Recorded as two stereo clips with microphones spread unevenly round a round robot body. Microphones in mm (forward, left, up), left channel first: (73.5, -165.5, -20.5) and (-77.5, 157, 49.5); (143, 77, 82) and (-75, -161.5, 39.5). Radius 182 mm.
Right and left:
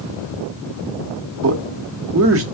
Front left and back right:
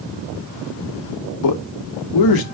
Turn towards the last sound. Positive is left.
turn(degrees=55)